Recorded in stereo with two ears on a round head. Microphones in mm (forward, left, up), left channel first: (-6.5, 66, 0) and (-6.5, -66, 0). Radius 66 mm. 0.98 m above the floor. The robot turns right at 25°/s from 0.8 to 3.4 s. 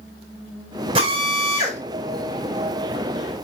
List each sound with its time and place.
0.9 s a drill: 35° right (ahead or behind), 5.5 m; by 1.8 s 15° right (ahead or behind), 5.5 m